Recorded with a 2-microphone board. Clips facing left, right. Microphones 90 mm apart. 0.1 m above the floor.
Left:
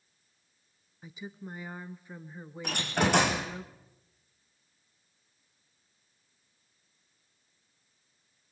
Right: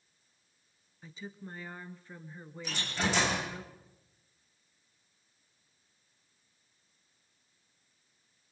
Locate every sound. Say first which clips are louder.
1.0 s a woman speaking: left 2 dB; 15° left (ahead or behind), 1.2 m
2.6 s a door slam: left 5 dB; 65° left (ahead or behind), 4.5 m